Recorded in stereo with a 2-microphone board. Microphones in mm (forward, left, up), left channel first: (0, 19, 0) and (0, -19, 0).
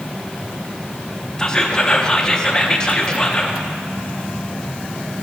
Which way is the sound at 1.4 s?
20° left (ahead or behind).